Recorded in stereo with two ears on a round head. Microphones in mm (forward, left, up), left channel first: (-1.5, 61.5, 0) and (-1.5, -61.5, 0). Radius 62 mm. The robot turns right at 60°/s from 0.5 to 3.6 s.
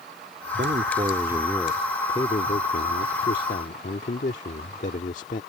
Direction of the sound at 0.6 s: 60° right.